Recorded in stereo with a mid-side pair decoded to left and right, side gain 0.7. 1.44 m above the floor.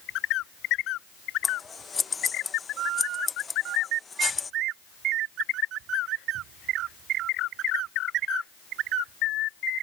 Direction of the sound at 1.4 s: 20° left.